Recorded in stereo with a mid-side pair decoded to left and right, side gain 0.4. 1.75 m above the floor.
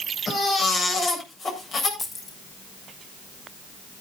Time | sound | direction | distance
0.3 | a baby crying | 60° left | 7.5 m
2.0 | keys jangling | 45° left | 3.5 m